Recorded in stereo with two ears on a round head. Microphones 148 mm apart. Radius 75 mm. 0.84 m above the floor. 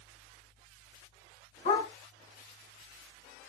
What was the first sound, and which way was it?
A dog barking, 50° left (ahead or behind).